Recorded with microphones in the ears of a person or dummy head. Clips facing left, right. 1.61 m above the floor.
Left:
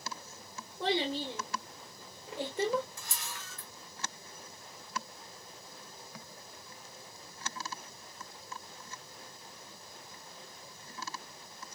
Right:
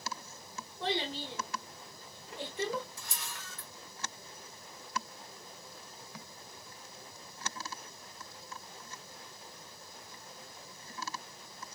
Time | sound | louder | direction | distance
0.8 | a child speaking | left 4 dB | 60° left (ahead or behind) | 1.3 m
3.0 | a camera shutter | left 1 dB | 60° left (ahead or behind) | 1.3 m